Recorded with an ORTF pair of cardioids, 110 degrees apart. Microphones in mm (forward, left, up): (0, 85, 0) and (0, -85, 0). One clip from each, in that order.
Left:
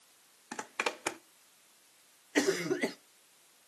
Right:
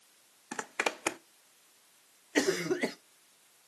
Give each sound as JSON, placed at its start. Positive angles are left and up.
{"t": 0.5, "sound": "a zipper", "azimuth_deg": -15, "distance_m": 0.6}
{"t": 2.4, "sound": "a cough", "azimuth_deg": -5, "distance_m": 0.7}